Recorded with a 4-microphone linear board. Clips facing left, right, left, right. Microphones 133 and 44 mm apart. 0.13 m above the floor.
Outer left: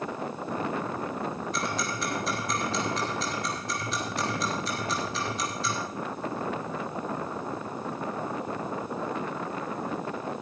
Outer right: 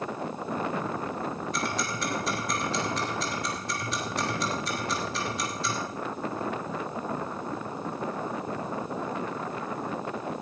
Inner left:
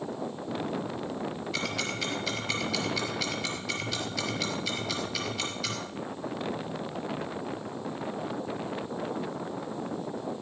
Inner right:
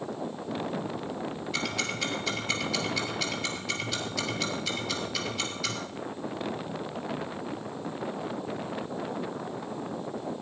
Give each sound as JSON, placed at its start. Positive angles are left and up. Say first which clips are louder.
{"t": 1.5, "sound": "ticking", "louder": "even, inner right 2 dB", "side_deg": 0, "distance_m": 3.0}